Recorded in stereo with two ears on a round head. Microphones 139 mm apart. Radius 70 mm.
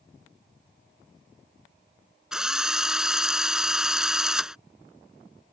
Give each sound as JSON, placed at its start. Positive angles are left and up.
{"t": 2.3, "sound": "a drill", "side_deg": -5}